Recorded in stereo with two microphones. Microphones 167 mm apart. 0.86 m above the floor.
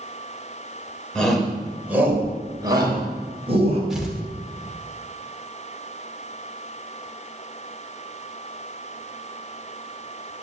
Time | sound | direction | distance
1.1 | a shout | 5° left (ahead or behind) | 4.5 m
3.9 | tearing paper | 5° right (ahead or behind) | 2.5 m